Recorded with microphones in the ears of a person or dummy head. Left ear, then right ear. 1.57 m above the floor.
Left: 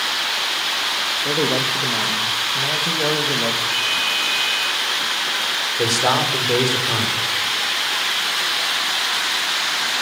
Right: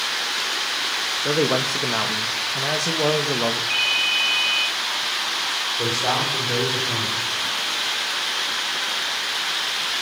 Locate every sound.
1.2 s a man speaking: 75° right (ahead or behind), 1.8 m
3.7 s a ringtone: 20° right (ahead or behind), 3.5 m
5.8 s a man speaking: 75° left (ahead or behind), 6.5 m